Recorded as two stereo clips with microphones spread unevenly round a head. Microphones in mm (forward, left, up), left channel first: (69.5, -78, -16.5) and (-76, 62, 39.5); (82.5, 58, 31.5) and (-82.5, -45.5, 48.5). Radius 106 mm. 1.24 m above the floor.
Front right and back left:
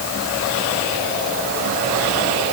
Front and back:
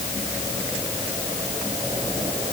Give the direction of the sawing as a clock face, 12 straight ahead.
No sawing in this recording.